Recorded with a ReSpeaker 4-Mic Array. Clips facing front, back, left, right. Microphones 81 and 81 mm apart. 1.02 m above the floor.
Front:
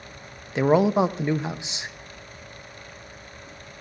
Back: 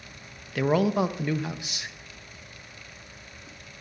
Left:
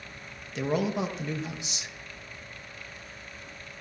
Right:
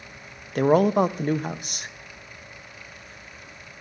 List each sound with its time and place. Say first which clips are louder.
0.6 s a man speaking: front 4 dB, right 10 dB; 65° right, 0.7 m